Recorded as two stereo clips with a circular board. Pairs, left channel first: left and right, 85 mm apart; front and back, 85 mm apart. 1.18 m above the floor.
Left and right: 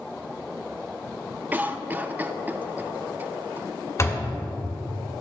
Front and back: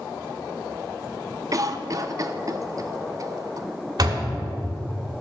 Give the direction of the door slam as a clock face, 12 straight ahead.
7 o'clock.